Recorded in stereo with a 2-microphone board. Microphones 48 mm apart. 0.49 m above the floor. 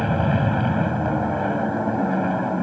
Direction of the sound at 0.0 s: Centre (ahead or behind).